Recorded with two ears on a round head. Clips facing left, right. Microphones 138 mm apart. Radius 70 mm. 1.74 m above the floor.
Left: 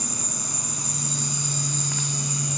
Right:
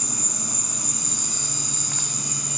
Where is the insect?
30° right (ahead or behind), 1.6 m.